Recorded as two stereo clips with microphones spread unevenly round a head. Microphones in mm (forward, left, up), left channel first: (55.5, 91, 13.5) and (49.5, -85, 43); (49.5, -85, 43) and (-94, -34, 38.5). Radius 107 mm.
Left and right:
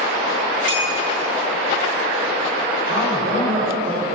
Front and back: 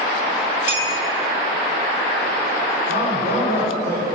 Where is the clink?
125° right, 2.5 m.